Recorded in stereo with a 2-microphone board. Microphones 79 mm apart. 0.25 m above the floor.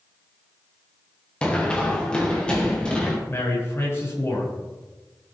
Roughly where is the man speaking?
Left.